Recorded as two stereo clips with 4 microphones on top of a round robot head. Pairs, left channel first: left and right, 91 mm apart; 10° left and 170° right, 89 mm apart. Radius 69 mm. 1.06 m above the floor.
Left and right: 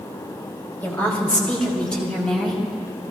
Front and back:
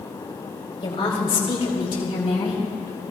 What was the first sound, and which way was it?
A woman speaking, 25° left.